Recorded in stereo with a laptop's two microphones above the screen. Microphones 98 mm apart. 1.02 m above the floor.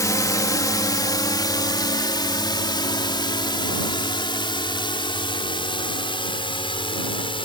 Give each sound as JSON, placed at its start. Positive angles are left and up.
{"t": 0.0, "sound": "a drone", "side_deg": 35}